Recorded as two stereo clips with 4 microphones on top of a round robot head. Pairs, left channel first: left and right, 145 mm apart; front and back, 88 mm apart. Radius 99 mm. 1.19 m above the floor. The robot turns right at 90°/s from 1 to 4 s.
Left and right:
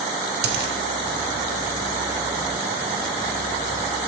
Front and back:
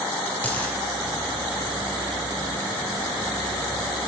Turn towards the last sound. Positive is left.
turn(degrees=-170)